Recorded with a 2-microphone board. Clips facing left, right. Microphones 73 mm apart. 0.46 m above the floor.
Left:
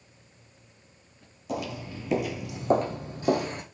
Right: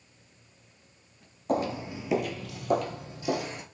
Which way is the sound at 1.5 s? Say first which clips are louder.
Right 5 dB; 45° right (ahead or behind).